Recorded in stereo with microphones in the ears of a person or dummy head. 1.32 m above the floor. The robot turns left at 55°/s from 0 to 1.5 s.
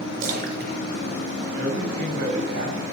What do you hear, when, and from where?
0.2 s a splash: 45° right (ahead or behind), 4 m; by 2.2 s 60° right (ahead or behind), 4 m
1.5 s a man speaking: 65° right (ahead or behind), 7 m